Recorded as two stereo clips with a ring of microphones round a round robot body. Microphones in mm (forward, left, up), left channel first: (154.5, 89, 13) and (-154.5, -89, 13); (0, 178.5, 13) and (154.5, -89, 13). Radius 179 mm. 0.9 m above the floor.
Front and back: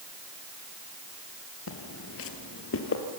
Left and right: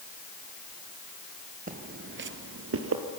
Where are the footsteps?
5° right, 1.2 m; by 3.0 s 25° right, 1.7 m.